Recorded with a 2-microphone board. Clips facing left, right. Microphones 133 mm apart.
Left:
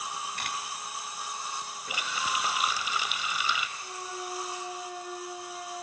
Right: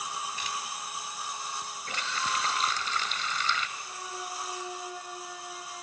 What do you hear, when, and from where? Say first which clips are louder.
0.4 s a camera shutter: even; 60° left (ahead or behind), 1.3 m
1.9 s a running tap: even; 10° left (ahead or behind), 1.0 m
3.8 s a flute: left 1 dB; 30° left (ahead or behind), 6.5 m